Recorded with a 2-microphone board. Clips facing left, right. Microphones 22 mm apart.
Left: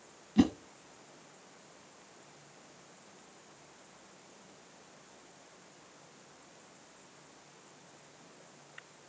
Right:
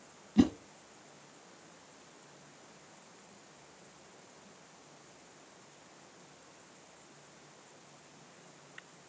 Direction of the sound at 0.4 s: 10° left (ahead or behind).